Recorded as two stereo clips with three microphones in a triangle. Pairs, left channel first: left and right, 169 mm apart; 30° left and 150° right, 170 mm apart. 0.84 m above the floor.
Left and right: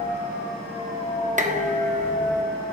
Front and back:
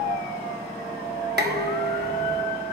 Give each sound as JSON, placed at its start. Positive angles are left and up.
{"t": 1.4, "sound": "dishes clattering", "azimuth_deg": -135, "distance_m": 1.0}